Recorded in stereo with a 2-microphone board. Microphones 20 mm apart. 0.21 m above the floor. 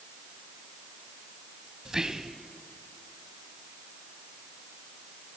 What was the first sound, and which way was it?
Whispering, 30° right (ahead or behind).